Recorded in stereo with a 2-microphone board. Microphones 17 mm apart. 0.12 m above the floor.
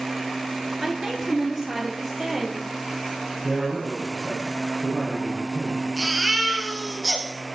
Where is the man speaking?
20° right (ahead or behind), 6.5 m.